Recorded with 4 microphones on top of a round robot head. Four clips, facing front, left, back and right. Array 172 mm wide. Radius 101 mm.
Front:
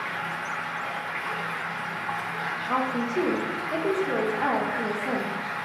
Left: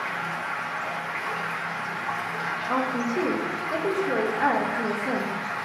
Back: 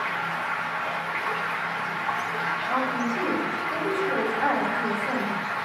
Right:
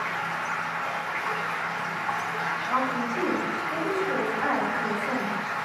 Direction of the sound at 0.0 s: 160° right.